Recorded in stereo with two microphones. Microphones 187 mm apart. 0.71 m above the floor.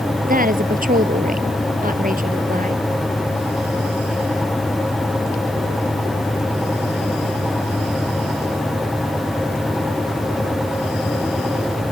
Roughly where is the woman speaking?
Right.